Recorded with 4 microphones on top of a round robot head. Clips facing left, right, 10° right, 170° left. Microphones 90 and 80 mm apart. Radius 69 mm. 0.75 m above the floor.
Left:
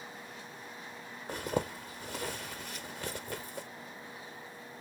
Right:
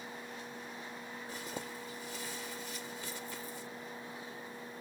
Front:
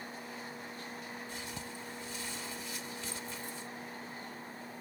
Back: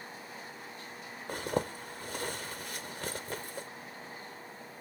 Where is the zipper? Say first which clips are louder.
Left 11 dB, back 10 dB; 130° left.